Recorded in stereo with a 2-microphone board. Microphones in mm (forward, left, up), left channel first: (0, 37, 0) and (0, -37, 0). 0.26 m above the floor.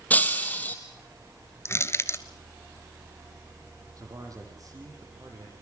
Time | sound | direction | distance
0.1 | breaking glass | 20° left (ahead or behind) | 2.5 m
1.6 | crushing | 35° left (ahead or behind) | 1.2 m
4.0 | a man speaking | 45° right (ahead or behind) | 8 m